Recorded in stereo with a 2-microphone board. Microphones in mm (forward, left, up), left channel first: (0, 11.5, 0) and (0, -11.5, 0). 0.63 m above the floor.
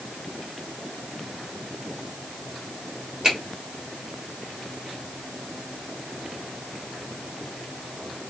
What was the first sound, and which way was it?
A finger snap, 30° right (ahead or behind).